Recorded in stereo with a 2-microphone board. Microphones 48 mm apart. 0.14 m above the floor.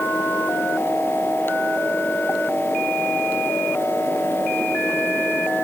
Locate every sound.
Only background noise.